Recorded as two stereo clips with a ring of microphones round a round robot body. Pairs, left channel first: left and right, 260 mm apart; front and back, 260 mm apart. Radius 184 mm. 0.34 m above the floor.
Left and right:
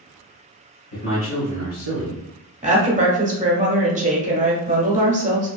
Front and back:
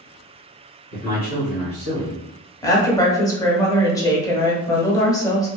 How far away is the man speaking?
About 1.3 m.